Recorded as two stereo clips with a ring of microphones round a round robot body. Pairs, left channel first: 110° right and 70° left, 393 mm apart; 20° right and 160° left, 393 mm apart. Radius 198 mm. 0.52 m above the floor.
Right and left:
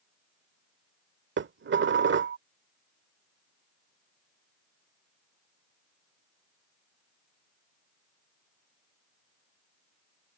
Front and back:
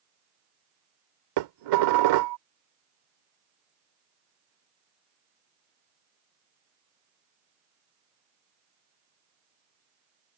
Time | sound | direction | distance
1.4 | dishes clattering | 130° left | ?